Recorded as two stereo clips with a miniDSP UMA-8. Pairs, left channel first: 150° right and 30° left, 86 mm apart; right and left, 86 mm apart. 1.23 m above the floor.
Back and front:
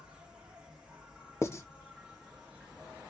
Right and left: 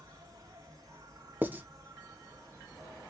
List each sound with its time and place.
0.0 s an insect: 105° left, 0.9 m
1.4 s writing: 155° left, 0.7 m